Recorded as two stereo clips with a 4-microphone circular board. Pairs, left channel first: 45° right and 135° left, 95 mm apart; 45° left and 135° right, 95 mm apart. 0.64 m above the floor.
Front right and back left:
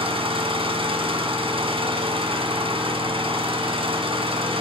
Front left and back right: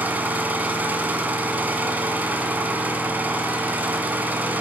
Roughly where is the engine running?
Behind left.